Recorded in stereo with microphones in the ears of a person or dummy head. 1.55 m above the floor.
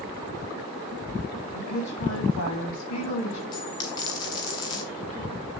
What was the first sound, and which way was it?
A woman speaking, 85° left.